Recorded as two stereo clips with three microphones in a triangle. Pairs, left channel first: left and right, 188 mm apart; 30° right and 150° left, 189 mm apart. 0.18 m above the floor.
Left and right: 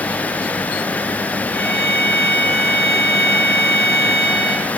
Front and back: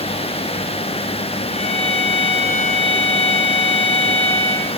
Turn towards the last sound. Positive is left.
turn(degrees=-150)